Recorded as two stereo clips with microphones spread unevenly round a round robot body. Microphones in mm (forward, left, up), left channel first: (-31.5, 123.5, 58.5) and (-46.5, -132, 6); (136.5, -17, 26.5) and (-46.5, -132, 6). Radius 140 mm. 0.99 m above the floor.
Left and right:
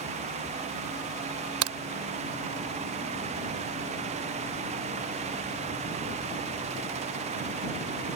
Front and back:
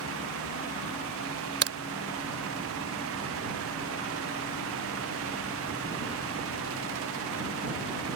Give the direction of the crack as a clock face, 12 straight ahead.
4 o'clock.